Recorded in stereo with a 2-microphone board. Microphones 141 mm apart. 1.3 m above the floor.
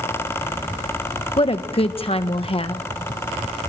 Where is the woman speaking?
40° left (ahead or behind), 1.3 m.